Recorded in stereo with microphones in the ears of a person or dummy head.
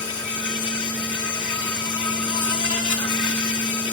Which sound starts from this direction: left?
An insect, at 0.0 s.